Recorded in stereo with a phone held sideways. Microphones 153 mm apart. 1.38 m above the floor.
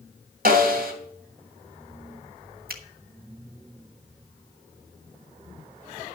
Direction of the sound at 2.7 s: 70° right (ahead or behind).